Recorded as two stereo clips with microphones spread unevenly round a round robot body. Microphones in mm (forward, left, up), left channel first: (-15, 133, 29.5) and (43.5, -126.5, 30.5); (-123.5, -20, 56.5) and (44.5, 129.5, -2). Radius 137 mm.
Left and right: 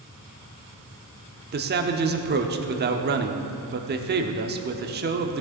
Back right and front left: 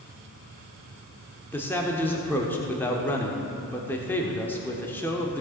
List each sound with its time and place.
1.5 s a man speaking: 45° right, 1.0 m